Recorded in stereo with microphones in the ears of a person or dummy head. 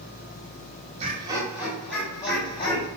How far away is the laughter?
About 0.7 m.